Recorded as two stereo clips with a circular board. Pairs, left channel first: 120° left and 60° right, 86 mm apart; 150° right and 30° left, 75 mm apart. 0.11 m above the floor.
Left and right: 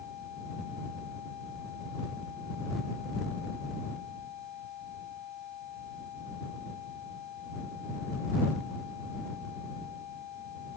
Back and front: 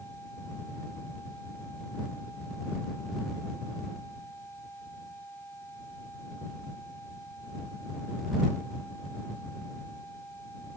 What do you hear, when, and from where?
Only background noise.